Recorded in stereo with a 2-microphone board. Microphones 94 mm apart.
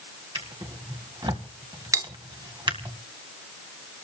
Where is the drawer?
55° right (ahead or behind), 1.8 m.